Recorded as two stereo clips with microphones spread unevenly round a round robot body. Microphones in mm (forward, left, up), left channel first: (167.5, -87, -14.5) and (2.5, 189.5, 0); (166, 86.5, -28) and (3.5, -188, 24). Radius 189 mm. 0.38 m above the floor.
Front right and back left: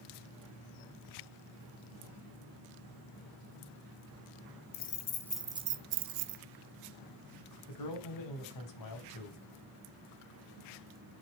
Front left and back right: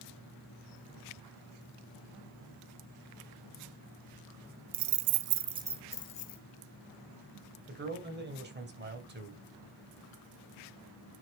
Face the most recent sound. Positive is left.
turn(degrees=-60)